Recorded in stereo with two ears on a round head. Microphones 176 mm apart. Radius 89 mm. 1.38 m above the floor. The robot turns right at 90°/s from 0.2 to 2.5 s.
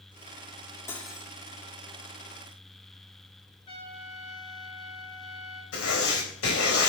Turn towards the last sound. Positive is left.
turn(degrees=80)